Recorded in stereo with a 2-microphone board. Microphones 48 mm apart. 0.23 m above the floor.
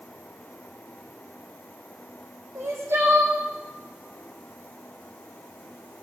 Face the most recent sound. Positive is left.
turn(degrees=-60)  # may be behind; listen again after turning